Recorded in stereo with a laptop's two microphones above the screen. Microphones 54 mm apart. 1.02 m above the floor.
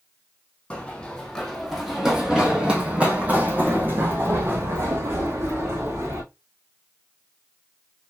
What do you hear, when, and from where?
0.7 s running footsteps: 20° left (ahead or behind), 2.5 m; by 6.2 s 55° right (ahead or behind), 4 m